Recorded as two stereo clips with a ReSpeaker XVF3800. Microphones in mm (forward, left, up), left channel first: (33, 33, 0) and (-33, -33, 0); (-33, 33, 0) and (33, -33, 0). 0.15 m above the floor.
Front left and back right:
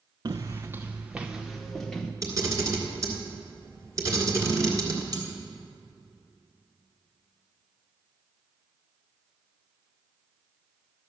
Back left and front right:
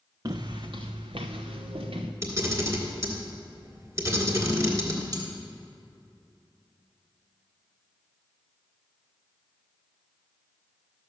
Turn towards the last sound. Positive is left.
turn(degrees=-90)